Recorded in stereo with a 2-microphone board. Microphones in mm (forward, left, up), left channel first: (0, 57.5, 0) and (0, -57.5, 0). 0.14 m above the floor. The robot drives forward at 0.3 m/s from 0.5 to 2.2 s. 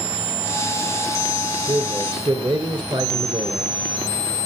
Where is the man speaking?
40° right (ahead or behind), 2.5 m.